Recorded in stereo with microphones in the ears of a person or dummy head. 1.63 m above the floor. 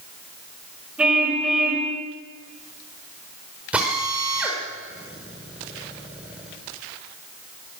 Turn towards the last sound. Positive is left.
turn(degrees=-10)  # may be behind; listen again after turning